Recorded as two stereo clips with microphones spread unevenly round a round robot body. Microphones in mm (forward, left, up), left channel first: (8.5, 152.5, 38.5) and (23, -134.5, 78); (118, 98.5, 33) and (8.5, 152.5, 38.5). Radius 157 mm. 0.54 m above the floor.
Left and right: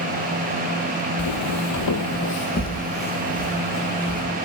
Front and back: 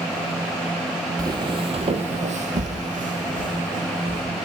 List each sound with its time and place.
1.2 s footsteps: 95° left, 1.1 m; by 4.2 s straight behind, 2.5 m